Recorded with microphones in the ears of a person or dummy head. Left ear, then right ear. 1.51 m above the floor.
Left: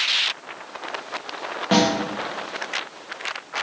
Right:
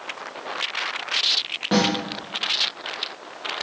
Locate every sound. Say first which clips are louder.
1.7 s a snare drum: left 2 dB; 15° left (ahead or behind), 0.7 m